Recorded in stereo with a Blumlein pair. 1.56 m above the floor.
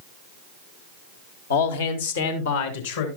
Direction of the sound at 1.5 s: 65° left.